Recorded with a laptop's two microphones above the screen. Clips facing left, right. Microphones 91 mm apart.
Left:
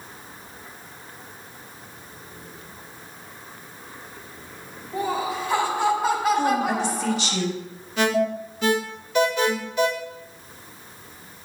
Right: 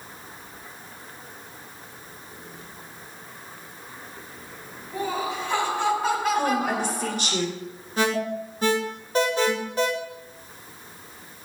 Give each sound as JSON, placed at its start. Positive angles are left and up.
{"t": 4.9, "sound": "laughter", "side_deg": 10, "distance_m": 3.0}
{"t": 6.3, "sound": "a woman speaking", "side_deg": -55, "distance_m": 4.5}
{"t": 8.0, "sound": "an alarm", "side_deg": -40, "distance_m": 2.5}